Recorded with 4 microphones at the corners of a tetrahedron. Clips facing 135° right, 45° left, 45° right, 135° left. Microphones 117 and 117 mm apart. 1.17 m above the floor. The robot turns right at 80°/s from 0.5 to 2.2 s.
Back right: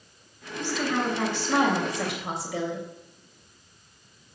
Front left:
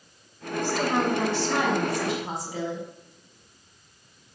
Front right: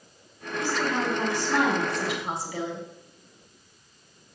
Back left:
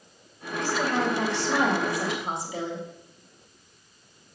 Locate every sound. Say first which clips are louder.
0.6 s a woman speaking: front left 3 dB, back left 1 dB; 75° left, 3 m; by 2.9 s 155° right, 3 m